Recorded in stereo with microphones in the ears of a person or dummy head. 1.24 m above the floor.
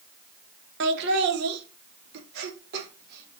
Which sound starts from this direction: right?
Laughter, at 0.8 s.